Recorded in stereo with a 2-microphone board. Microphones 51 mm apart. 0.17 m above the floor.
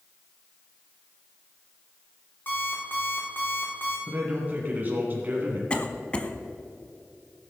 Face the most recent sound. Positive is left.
turn(degrees=25)  # may be behind; listen again after turning